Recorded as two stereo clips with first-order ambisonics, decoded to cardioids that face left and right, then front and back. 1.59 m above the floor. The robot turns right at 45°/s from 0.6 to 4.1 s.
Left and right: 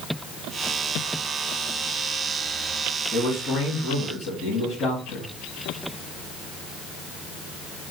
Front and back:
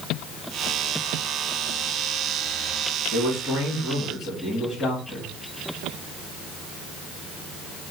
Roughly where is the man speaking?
Ahead left.